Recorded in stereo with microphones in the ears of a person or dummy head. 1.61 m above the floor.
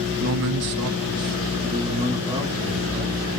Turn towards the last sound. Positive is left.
turn(degrees=-20)  # may be behind; listen again after turning